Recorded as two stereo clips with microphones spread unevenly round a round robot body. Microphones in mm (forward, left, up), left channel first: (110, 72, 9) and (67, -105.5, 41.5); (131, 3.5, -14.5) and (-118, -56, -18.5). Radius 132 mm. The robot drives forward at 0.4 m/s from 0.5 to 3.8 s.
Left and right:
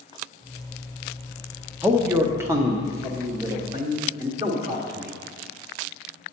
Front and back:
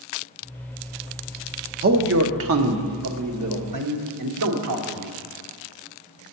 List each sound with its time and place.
1.8 s a man speaking: 170° left, 0.6 m; by 5.1 s 175° left, 1.2 m